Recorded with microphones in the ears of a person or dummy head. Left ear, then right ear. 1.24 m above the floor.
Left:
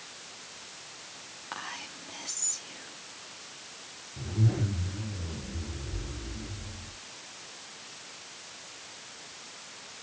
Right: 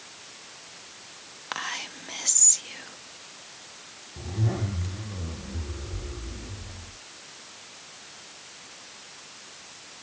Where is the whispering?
65° right (ahead or behind), 0.9 m.